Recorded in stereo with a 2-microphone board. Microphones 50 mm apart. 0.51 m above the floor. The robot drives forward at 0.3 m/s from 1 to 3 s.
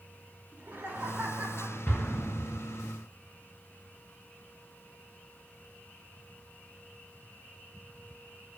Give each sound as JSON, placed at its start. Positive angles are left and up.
{"t": 0.5, "sound": "laughter", "side_deg": -35, "distance_m": 3.5}
{"t": 1.9, "sound": "an explosion", "side_deg": 55, "distance_m": 1.7}